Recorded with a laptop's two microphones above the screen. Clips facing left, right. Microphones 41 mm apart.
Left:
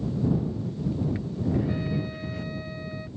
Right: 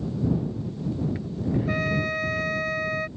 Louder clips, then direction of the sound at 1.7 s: Right 5 dB; 80° right.